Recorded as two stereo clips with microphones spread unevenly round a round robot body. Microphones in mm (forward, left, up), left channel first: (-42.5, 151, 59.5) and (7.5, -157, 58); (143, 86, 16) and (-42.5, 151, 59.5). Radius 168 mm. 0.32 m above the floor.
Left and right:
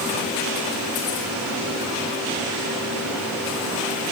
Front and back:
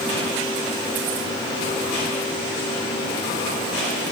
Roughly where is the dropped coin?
I don't hear a dropped coin.